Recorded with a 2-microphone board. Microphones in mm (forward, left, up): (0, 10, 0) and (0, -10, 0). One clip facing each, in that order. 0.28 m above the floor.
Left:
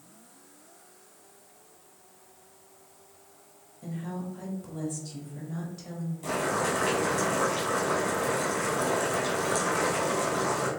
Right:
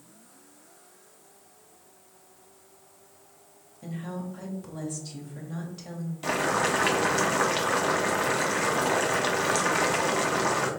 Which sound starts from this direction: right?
Boiling, at 6.2 s.